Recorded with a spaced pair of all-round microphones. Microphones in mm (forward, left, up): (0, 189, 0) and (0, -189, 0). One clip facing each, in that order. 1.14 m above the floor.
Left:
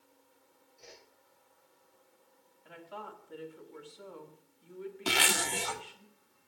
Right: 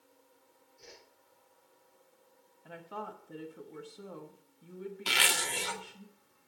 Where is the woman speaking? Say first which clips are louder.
Right 3 dB; 55° right (ahead or behind), 1.6 m.